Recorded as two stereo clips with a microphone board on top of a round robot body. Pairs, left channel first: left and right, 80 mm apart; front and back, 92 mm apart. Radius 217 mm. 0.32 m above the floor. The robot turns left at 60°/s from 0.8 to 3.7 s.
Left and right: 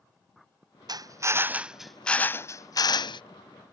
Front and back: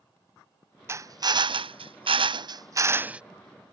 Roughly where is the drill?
Behind right.